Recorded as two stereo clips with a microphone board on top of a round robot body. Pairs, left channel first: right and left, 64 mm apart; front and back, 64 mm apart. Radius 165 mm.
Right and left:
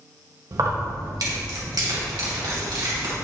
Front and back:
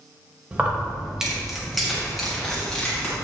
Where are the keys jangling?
110° left, 1.8 m; by 3.1 s 80° left, 3 m.